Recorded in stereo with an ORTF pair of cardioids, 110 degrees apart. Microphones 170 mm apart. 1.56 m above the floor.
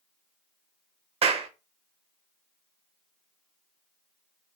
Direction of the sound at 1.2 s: 35° right.